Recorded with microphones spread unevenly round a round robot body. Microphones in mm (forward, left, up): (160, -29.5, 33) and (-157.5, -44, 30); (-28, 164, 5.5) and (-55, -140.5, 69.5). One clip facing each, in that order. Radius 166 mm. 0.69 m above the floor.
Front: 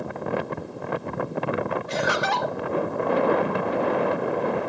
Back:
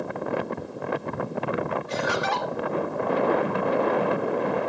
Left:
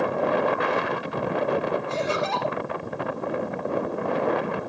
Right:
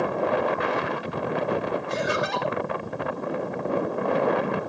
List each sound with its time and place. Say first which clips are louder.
1.9 s laughter: front 1 dB, even; 20° right, 3 m